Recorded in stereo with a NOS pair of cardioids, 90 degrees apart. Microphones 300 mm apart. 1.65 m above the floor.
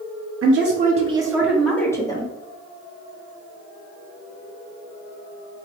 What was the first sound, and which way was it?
A woman speaking, 50° right.